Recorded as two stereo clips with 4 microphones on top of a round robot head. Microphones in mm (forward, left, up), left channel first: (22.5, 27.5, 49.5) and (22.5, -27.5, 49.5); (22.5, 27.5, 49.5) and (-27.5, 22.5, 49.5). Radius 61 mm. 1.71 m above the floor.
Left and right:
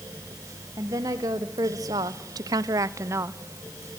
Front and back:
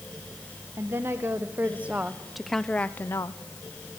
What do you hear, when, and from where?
0.8 s a woman speaking: 125° right, 1.8 m; by 3.4 s 40° right, 0.9 m